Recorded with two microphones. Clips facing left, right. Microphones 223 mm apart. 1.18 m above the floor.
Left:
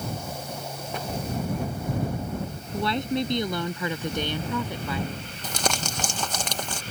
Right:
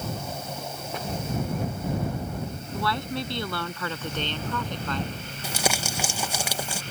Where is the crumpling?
10° right (ahead or behind).